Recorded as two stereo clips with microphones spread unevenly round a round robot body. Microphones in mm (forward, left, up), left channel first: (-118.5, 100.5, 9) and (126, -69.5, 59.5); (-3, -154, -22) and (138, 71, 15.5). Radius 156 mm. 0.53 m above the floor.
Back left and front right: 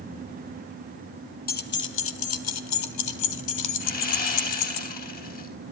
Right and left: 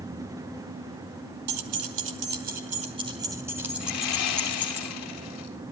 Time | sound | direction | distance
1.5 | keys jangling | 95° left | 1.3 m
3.8 | sawing | 155° right | 4 m